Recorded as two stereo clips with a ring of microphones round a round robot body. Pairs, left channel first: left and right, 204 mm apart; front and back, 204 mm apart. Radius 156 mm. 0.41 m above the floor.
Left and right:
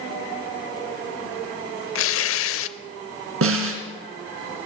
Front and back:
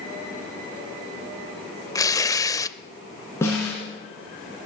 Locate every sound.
1.9 s tearing paper: 75° left, 0.6 m
3.4 s a snare drum: 80° right, 3 m